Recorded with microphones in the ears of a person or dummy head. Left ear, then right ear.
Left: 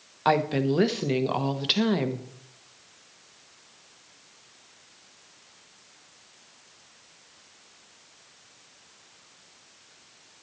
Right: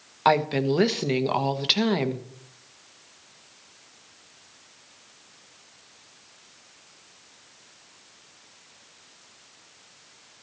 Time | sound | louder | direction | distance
0.2 | a woman speaking | right 2 dB | 15° right (ahead or behind) | 1.0 m